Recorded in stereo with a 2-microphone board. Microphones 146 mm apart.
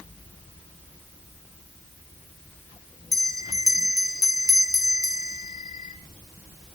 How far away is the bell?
About 1.2 m.